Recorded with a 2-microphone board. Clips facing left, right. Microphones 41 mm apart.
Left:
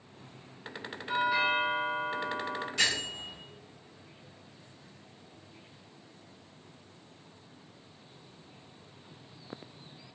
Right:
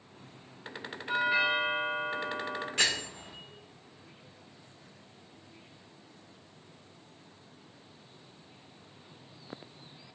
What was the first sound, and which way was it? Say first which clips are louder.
A doorbell: even; 30° right (ahead or behind).